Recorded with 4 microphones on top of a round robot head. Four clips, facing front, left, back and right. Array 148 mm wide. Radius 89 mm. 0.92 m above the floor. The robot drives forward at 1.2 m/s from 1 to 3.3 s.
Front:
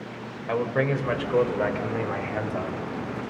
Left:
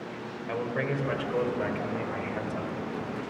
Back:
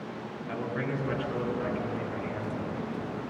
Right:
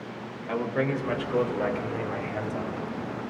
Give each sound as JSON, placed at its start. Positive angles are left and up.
{"t": 0.5, "sound": "a man speaking", "azimuth_deg": -10, "distance_m": 4.0}